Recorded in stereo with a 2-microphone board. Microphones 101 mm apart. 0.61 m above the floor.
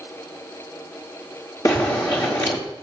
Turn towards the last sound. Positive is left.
turn(degrees=40)  # may be behind; listen again after turning